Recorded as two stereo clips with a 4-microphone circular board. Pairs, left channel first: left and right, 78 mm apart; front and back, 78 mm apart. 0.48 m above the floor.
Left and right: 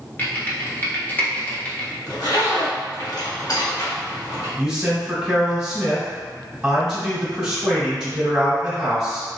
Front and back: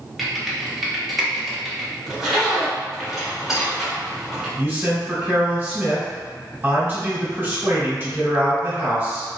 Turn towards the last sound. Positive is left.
turn(degrees=-160)